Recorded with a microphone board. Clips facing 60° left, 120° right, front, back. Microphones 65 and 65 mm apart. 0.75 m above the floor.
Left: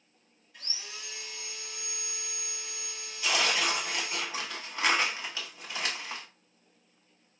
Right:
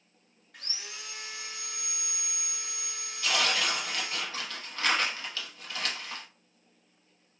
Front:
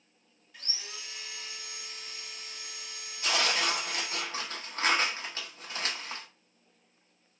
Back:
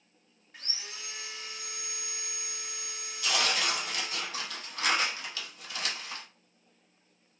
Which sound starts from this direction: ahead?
Tearing paper, at 3.2 s.